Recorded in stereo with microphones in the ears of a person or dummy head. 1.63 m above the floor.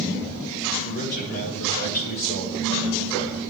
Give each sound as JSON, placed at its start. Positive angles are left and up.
{"t": 0.8, "sound": "a man speaking", "side_deg": 65, "distance_m": 6.0}